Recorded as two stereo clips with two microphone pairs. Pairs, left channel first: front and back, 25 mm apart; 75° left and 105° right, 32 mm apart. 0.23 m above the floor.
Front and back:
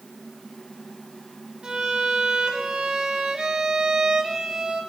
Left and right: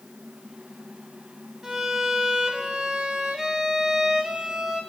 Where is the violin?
155° right, 1.1 m.